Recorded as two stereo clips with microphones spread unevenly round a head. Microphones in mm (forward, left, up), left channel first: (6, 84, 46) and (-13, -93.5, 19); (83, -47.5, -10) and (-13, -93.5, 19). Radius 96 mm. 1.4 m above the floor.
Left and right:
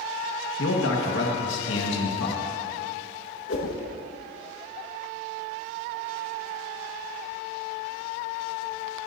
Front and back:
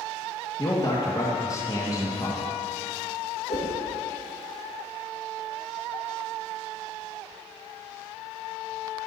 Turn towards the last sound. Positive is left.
turn(degrees=65)